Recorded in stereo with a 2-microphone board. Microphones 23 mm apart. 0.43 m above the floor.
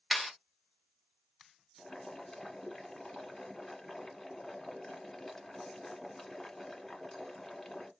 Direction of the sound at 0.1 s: 5° right (ahead or behind).